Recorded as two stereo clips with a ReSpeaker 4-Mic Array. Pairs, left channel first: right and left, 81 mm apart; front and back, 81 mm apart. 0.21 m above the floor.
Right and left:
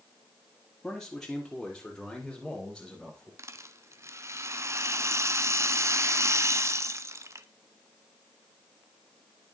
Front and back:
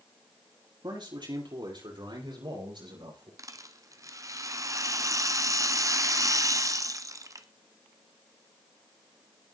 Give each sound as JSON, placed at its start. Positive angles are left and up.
{"t": 0.8, "sound": "a man speaking", "azimuth_deg": -170, "distance_m": 5.5}
{"t": 3.4, "sound": "a rattle", "azimuth_deg": 140, "distance_m": 0.9}